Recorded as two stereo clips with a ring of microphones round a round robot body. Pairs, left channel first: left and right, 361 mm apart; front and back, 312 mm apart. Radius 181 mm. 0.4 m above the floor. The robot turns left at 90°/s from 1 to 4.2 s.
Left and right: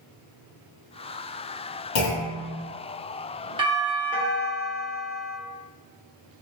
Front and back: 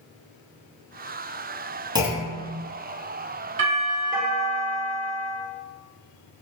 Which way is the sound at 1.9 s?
105° left.